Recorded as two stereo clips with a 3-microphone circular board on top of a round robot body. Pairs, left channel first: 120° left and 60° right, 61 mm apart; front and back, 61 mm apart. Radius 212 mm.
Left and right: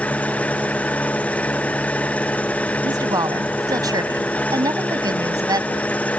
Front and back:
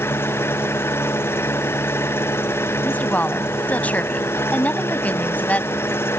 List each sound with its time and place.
0.0 s an engine running: 50° left
2.8 s a woman speaking: 65° right